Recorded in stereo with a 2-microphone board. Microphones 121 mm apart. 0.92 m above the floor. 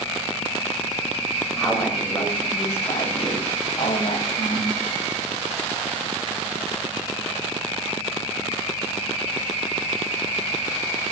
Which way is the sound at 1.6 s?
Centre (ahead or behind).